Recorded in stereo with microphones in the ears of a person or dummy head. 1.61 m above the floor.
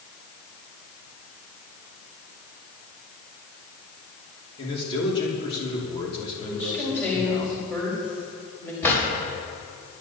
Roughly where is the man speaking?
Left.